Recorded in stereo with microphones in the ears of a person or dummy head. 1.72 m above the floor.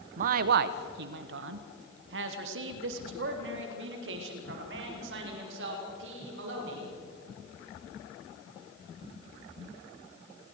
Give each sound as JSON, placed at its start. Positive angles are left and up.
{"t": 0.2, "sound": "a man speaking", "side_deg": -50, "distance_m": 0.8}